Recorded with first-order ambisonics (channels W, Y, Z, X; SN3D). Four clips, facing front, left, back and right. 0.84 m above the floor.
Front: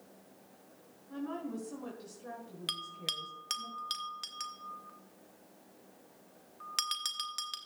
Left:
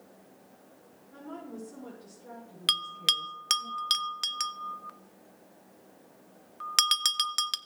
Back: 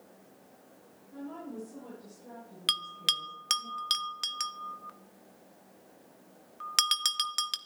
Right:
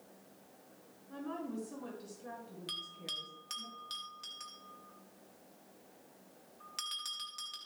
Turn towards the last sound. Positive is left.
turn(degrees=115)